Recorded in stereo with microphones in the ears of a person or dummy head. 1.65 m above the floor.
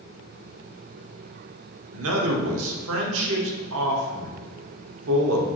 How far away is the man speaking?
About 0.9 m.